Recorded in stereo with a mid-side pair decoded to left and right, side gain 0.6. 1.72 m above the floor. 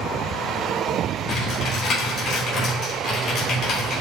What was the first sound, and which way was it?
Typing on a keyboard, 45° left.